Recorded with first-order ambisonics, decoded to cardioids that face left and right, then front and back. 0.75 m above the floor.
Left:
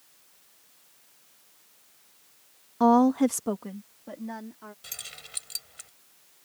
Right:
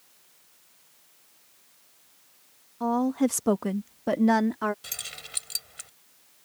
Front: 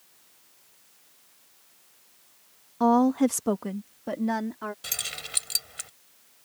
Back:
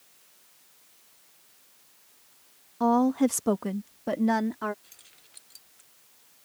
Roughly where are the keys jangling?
Ahead.